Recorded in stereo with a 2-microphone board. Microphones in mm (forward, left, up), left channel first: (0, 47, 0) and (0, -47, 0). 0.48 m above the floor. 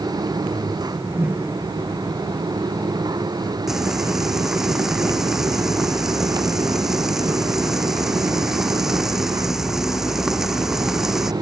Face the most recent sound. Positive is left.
turn(degrees=-5)  # may be behind; listen again after turning